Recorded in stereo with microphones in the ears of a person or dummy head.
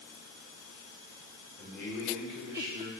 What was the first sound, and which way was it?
A man speaking, 20° left (ahead or behind).